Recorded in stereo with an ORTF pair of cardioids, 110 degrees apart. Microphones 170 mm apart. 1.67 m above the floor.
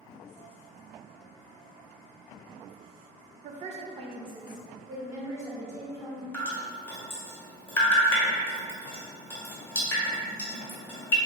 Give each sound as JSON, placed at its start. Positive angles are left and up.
{"t": 3.4, "sound": "a woman speaking", "azimuth_deg": -50, "distance_m": 0.5}
{"t": 6.3, "sound": "dripping", "azimuth_deg": 10, "distance_m": 1.1}